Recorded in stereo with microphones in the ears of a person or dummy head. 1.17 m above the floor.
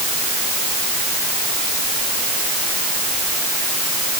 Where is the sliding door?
I don't hear a sliding door.